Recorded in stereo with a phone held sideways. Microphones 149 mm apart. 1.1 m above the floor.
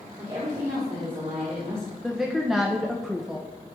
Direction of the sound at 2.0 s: Centre (ahead or behind).